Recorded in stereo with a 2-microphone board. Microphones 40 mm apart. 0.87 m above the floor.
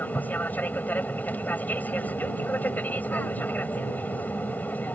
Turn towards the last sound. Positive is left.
turn(degrees=45)  # may be behind; listen again after turning